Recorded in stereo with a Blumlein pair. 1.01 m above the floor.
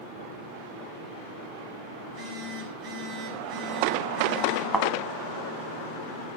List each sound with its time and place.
2.0 s a phone buzzing: 30° right, 8 m
4.7 s a thud: 5° right, 2 m